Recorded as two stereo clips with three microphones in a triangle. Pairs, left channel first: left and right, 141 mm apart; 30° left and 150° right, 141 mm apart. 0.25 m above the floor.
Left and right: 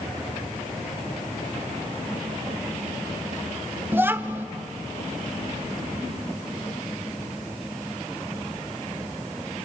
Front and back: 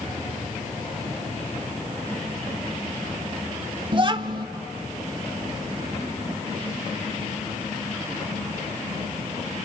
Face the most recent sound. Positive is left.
turn(degrees=-155)